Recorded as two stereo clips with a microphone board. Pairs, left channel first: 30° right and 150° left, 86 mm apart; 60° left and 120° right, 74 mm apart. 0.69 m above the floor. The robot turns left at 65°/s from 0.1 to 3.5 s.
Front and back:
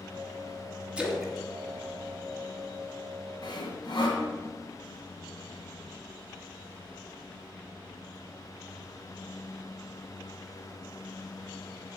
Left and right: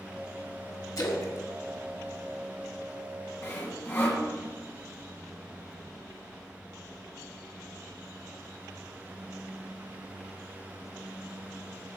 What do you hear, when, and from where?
1.0 s a splash: 75° left, 1.2 m; by 3.1 s 65° right, 1.2 m
3.4 s sawing: 5° left, 1.8 m; by 4.2 s straight ahead, 1.8 m